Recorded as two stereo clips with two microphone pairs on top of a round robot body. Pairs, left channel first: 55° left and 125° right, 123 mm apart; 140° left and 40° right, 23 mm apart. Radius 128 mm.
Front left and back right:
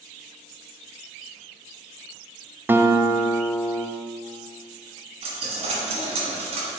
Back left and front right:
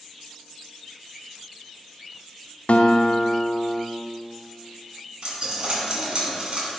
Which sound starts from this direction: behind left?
A guitar, at 2.7 s.